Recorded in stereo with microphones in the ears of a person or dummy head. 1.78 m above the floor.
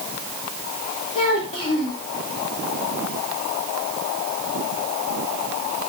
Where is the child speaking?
25° left (ahead or behind), 3 m.